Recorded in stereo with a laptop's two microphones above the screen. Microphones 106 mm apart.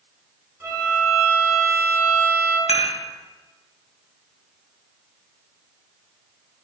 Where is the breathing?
No breathing in this recording.